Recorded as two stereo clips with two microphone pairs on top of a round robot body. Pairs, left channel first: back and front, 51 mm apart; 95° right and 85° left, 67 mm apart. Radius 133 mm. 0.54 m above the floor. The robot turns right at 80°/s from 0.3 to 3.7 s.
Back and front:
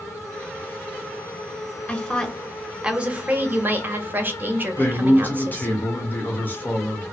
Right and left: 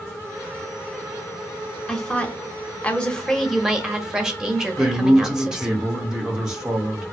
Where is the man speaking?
175° left, 1.4 m.